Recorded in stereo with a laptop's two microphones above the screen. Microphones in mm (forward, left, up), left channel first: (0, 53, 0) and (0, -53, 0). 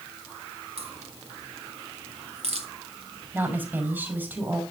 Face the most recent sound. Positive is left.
turn(degrees=-20)  # may be behind; listen again after turning